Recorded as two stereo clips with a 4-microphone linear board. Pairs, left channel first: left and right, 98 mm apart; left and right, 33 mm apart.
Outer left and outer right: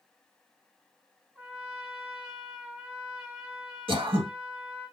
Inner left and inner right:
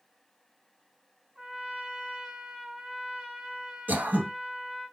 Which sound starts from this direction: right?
Throat clearing, at 3.9 s.